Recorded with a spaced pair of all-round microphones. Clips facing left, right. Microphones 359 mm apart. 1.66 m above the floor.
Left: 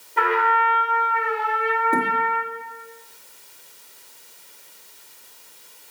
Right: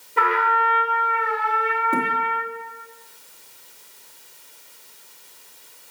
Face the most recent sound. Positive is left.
turn(degrees=-10)  # may be behind; listen again after turning